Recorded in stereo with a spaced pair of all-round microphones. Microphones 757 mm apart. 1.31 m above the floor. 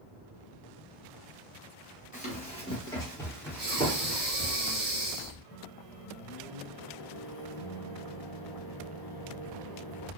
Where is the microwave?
35° left (ahead or behind), 0.5 m.